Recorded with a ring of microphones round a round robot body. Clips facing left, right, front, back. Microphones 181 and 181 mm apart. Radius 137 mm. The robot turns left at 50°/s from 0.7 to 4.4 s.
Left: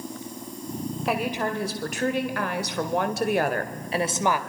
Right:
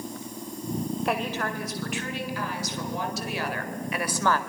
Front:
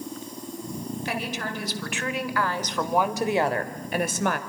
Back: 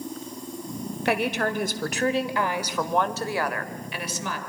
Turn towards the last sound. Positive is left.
turn(degrees=15)